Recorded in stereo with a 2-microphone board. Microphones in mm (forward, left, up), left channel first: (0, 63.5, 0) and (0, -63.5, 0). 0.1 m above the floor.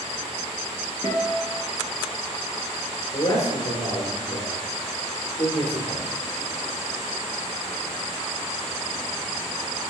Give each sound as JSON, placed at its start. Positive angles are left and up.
{"t": 1.0, "sound": "a guitar", "side_deg": -35, "distance_m": 2.0}
{"t": 3.1, "sound": "a man speaking", "side_deg": 50, "distance_m": 2.5}